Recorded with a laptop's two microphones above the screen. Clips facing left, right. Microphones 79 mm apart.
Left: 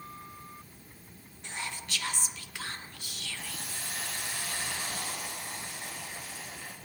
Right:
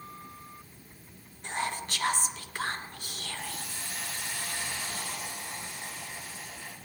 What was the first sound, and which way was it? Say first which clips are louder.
Whispering: right 7 dB; 45° right (ahead or behind).